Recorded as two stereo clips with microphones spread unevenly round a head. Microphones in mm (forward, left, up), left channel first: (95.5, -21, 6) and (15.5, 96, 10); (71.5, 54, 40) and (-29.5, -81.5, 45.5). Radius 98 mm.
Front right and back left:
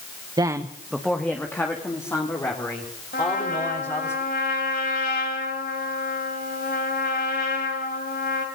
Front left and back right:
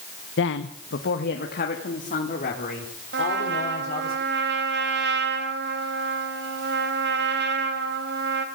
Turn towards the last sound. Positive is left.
turn(degrees=-105)